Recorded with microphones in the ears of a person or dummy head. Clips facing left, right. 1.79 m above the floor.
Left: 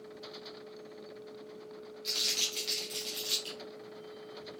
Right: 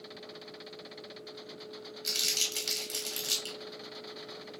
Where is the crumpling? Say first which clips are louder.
Even; 30° right (ahead or behind), 1.9 m.